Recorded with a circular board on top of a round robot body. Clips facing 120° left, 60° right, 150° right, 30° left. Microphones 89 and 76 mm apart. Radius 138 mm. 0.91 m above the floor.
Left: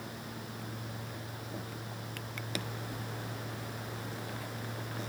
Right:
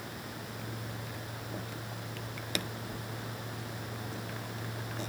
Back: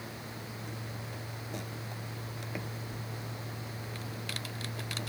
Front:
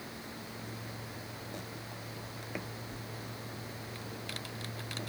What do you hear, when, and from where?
Only background noise.